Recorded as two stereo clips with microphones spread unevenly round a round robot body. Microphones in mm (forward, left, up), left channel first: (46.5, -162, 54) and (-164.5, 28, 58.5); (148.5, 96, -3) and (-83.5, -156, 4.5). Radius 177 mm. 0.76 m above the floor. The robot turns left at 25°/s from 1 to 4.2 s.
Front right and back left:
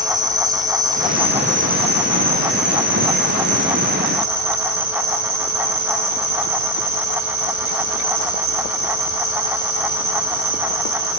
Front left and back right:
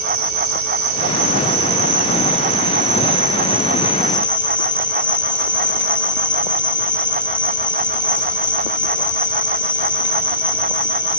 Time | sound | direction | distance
0.0 | an insect | 145° right | 2 m